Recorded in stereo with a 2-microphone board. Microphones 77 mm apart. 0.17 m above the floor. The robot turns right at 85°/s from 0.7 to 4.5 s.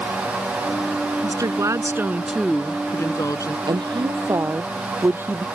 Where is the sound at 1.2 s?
100° right; by 3.6 s 100° left.